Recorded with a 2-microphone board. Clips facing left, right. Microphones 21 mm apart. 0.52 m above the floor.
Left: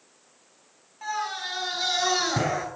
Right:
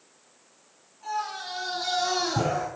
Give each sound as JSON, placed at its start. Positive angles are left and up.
{"t": 1.0, "sound": "a scream", "side_deg": 75, "distance_m": 5.0}